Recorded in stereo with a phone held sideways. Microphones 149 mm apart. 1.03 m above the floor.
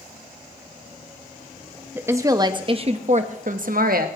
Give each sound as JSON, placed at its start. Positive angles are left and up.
{"t": 1.9, "sound": "a woman speaking", "side_deg": -15, "distance_m": 1.3}